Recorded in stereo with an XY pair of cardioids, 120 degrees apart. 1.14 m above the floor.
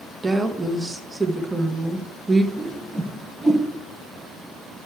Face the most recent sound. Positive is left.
turn(degrees=20)